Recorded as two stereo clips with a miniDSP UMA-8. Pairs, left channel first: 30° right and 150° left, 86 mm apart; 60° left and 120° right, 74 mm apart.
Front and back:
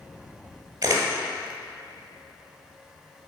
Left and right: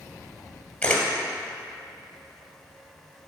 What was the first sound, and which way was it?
A camera shutter, 120° left.